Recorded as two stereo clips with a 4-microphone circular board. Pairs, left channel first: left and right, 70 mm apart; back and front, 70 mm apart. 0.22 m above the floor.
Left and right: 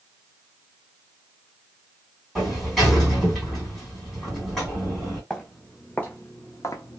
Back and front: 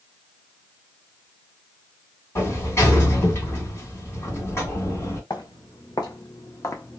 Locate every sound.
2.4 s a sliding door: 175° left, 1.9 m
5.3 s footsteps: 170° left, 1.2 m; by 7.0 s 115° left, 0.5 m